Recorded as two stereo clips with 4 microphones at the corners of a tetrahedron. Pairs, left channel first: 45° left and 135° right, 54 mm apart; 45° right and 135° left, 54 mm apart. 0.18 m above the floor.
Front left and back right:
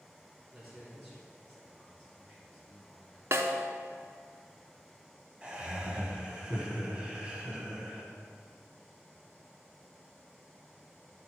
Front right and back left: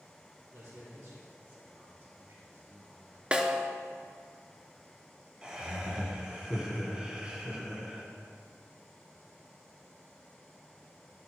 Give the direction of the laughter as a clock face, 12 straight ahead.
6 o'clock.